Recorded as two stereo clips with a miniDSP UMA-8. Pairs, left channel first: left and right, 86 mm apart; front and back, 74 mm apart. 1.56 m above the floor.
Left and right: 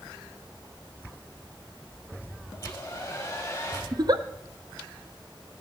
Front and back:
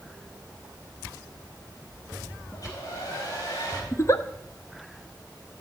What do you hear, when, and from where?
2.5 s a hair dryer: 30° left, 4 m
3.9 s a giggle: 50° right, 0.7 m